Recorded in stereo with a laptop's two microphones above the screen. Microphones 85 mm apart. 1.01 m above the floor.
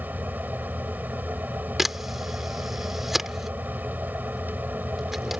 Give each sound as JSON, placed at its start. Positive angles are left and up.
{"t": 0.0, "sound": "a fan", "side_deg": -20}
{"t": 1.8, "sound": "a camera shutter", "side_deg": -5}